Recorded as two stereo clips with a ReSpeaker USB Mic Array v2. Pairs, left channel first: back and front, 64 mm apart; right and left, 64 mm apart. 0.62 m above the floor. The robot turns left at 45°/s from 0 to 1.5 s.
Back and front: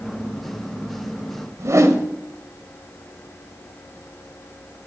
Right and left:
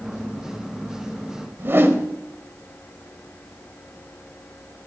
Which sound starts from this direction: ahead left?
A whoosh, at 1.6 s.